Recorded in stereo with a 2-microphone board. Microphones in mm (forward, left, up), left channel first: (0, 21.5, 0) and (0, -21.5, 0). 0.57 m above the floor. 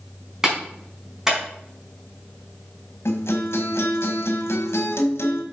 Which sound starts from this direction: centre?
A clap, at 0.4 s.